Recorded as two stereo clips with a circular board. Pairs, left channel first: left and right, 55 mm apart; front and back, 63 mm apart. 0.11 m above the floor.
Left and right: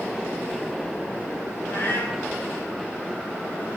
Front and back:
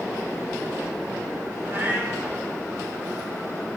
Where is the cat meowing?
125° left, 7 m.